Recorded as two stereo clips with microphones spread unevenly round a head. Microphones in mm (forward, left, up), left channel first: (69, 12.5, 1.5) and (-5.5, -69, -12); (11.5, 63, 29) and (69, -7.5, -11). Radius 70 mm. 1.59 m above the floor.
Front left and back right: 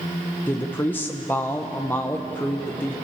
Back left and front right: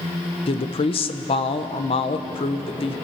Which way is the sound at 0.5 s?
125° left.